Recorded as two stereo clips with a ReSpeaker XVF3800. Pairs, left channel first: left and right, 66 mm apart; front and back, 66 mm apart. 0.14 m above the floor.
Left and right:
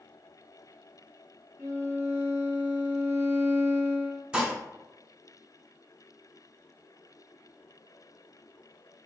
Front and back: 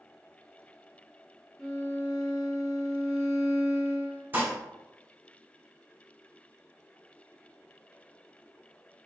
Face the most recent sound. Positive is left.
turn(degrees=-155)